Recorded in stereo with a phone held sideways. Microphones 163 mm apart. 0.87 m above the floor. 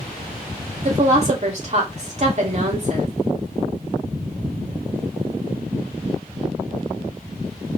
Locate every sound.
0.8 s a woman speaking: 45° right (ahead or behind), 2 m